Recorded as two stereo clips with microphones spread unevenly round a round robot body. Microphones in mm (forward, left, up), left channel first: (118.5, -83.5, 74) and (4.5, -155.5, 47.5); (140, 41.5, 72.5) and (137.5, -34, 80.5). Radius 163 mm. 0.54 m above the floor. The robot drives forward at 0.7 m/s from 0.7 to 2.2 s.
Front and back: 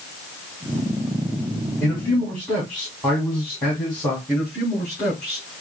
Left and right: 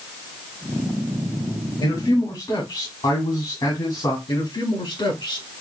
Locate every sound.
1.8 s a man speaking: 110° left, 2 m; by 4.2 s 115° left, 2 m
4.3 s a man speaking: 115° left, 3.5 m